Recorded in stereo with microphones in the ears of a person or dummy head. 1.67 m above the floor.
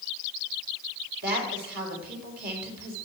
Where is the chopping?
No chopping in this recording.